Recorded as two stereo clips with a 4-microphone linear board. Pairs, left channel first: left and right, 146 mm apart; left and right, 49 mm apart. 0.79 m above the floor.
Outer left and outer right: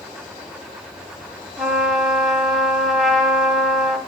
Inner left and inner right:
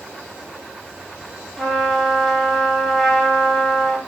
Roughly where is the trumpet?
Centre.